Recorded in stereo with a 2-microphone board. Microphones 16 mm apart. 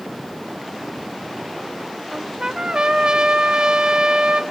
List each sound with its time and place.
2.1 s a trumpet: 50° right (ahead or behind), 1.0 m